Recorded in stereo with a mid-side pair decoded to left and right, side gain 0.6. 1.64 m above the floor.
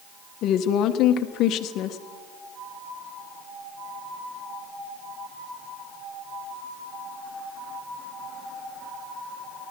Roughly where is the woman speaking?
Ahead left.